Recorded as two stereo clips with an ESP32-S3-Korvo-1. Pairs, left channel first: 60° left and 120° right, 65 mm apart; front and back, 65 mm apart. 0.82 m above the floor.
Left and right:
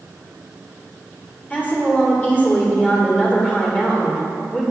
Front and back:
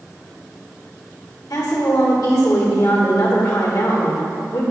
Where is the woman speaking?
Straight ahead, 2.5 m.